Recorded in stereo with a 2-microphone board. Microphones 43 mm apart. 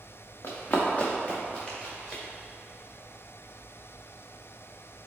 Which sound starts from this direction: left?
Running footsteps, at 0.4 s.